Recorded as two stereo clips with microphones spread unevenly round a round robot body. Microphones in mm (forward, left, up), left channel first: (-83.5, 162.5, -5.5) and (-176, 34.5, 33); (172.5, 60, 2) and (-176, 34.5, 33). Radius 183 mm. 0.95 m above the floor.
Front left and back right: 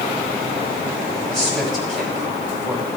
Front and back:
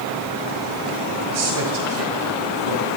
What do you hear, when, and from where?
1.3 s a man speaking: 145° left, 6.5 m